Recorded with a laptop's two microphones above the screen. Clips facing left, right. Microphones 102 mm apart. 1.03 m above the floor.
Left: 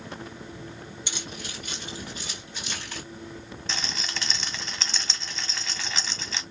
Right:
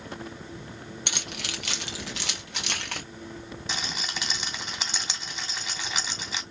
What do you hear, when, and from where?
1.1 s keys jangling: 60° right (ahead or behind), 1.2 m; by 3.0 s 65° right (ahead or behind), 1.7 m
3.7 s a rattle: 10° right (ahead or behind), 2 m